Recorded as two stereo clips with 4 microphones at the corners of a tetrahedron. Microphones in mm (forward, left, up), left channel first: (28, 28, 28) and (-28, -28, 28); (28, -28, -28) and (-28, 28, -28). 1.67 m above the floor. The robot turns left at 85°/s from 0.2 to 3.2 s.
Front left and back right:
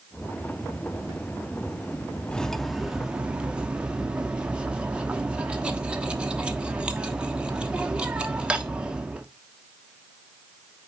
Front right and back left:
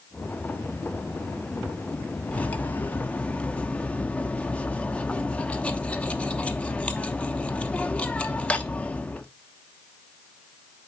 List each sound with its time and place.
2.3 s cutlery clinking: 10° right, 0.8 m; by 9.3 s 85° right, 0.8 m